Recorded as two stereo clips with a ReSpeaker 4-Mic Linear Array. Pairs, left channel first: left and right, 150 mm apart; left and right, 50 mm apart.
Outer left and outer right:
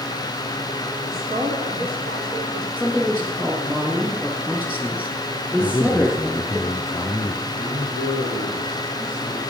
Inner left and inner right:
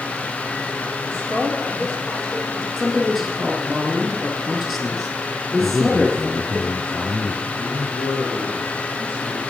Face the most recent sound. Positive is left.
turn(degrees=-70)  # may be behind; listen again after turning